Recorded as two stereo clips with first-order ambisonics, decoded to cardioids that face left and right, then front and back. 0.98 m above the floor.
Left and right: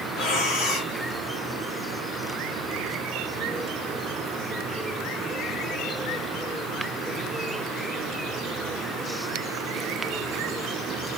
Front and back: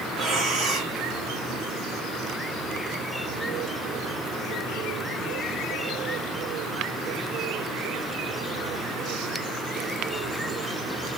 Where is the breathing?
125° left, 1.2 m.